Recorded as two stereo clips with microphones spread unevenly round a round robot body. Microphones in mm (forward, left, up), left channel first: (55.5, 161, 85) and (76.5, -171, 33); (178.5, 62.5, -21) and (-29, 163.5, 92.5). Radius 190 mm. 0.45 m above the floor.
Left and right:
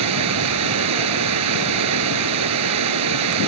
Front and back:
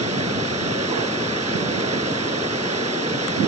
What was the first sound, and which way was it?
Running water, 130° right.